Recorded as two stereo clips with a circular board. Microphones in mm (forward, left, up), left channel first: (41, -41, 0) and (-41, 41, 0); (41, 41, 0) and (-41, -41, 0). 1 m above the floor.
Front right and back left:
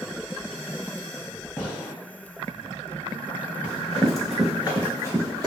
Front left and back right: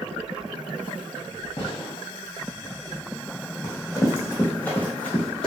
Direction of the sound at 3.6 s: 10° left.